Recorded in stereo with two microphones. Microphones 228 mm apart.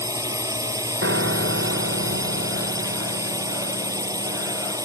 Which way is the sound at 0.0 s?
15° right (ahead or behind).